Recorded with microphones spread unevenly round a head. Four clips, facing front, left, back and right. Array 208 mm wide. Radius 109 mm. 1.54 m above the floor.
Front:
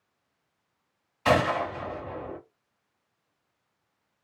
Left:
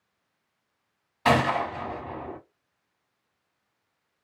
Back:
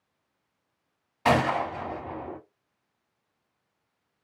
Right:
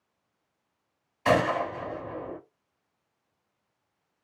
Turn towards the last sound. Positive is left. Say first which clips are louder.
# left 1 dB, even
turn(degrees=155)